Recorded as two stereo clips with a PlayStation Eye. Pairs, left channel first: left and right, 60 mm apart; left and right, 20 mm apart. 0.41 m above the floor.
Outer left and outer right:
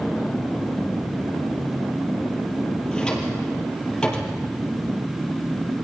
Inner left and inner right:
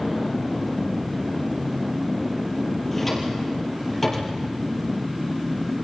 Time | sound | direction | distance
2.9 | a drawer | 15° left (ahead or behind) | 4.5 m